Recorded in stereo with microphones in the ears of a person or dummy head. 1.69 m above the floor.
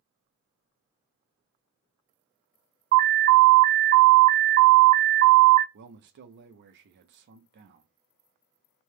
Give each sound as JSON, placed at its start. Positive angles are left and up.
{"t": 2.9, "sound": "an alarm", "side_deg": -40, "distance_m": 0.6}
{"t": 5.7, "sound": "a man speaking", "side_deg": -55, "distance_m": 0.7}